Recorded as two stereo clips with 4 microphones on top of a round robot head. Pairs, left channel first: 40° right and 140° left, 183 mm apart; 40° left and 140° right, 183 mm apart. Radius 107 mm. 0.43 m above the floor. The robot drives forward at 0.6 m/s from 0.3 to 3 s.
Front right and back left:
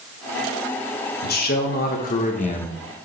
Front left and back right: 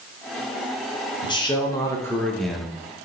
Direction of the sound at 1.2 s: 20° right.